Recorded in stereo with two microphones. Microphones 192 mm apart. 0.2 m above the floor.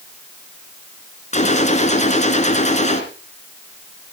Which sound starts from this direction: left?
A gunshot, at 1.3 s.